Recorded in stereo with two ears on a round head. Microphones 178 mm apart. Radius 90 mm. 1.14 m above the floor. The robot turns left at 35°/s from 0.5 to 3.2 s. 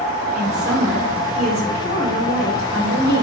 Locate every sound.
0.3 s a woman speaking: straight ahead, 5 m; by 3.2 s 95° right, 5 m